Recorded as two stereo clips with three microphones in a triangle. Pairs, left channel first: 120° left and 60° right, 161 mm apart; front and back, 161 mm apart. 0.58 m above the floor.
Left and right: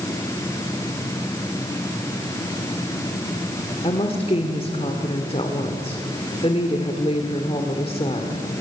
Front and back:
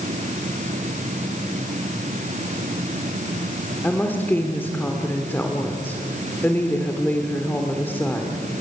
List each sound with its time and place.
3.8 s a woman speaking: 75° left, 1.6 m